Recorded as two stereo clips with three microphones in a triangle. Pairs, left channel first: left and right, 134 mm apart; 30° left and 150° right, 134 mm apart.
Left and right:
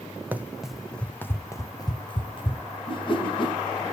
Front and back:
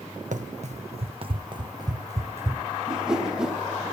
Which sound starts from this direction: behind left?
A whoosh, at 2.9 s.